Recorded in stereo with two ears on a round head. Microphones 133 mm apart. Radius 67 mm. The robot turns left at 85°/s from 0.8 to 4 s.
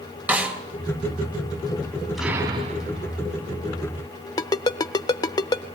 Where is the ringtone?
25° left (ahead or behind), 0.6 m.